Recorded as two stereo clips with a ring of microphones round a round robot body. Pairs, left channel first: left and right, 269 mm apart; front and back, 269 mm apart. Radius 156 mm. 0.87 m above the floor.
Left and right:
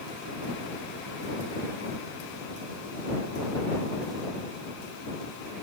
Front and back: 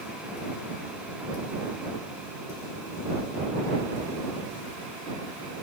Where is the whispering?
I don't hear whispering.